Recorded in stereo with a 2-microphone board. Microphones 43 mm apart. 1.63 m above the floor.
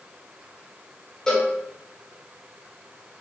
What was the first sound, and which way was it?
A cowbell, 15° left (ahead or behind).